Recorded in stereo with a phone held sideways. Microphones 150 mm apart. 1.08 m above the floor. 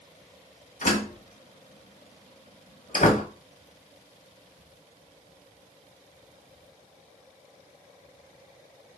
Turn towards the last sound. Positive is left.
turn(degrees=60)  # may be behind; listen again after turning